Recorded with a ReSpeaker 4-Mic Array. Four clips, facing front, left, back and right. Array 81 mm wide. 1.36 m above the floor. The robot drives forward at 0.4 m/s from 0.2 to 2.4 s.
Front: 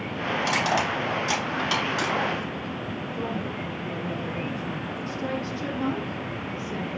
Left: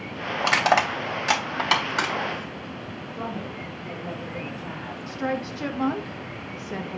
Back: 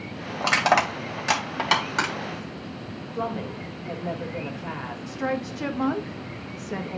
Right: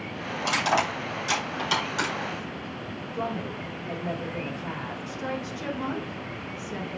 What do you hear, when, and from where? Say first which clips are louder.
0.4 s crushing: left 4 dB, back 5 dB; 135° left, 2.5 m; by 2.1 s 145° left, 3 m
3.1 s a woman speaking: right 2 dB, back 3 dB; 165° right, 3 m
5.1 s a woman speaking: left 7 dB, back 3 dB; 150° left, 1.6 m